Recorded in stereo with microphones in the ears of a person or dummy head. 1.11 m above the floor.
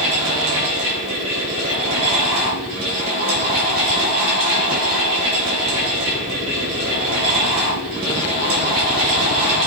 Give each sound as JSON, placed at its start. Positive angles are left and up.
{"t": 0.0, "sound": "a fan", "side_deg": -50, "distance_m": 4.0}